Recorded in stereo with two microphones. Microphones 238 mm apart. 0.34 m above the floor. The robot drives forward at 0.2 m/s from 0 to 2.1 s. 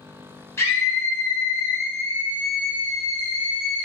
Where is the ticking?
I don't hear ticking.